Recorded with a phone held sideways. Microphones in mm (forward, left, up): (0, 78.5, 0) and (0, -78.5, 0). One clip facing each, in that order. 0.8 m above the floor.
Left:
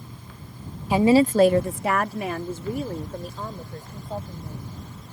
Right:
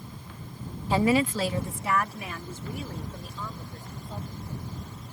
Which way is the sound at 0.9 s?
15° left (ahead or behind).